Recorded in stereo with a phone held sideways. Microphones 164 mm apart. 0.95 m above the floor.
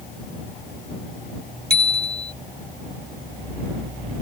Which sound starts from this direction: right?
A bicycle bell, at 1.7 s.